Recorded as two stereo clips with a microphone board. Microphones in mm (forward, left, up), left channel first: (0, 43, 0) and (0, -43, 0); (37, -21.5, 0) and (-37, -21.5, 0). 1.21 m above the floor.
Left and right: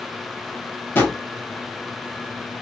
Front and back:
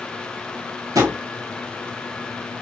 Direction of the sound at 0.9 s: 155° left.